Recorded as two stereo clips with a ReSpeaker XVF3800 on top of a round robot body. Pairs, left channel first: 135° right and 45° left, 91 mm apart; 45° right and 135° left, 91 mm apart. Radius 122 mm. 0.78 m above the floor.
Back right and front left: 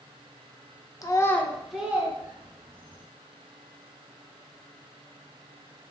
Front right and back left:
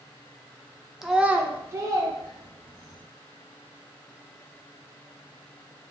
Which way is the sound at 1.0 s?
140° right.